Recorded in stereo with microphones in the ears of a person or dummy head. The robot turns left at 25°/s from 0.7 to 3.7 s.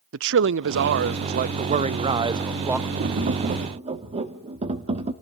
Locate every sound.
0.1 s a man speaking: 120° right, 0.6 m; by 2.9 s 175° right, 0.6 m
3.0 s tapping: 40° right (ahead or behind), 1.2 m; by 5.1 s 25° right (ahead or behind), 1.2 m